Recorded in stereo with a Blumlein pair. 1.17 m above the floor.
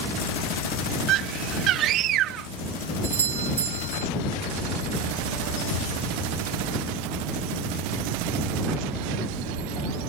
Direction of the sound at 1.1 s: 35° right.